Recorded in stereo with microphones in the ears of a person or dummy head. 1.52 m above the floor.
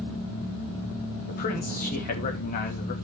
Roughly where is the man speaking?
Left.